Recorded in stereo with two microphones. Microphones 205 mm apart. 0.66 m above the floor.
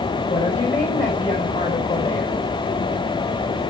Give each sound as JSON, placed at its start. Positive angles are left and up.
{"t": 0.3, "sound": "a woman speaking", "side_deg": 40, "distance_m": 6.0}